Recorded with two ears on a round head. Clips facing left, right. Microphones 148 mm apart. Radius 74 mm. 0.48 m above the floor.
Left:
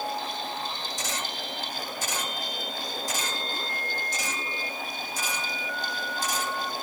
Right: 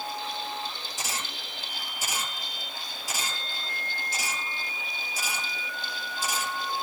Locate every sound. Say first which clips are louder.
1.0 s a camera shutter: left 3 dB; 10° right (ahead or behind), 7 m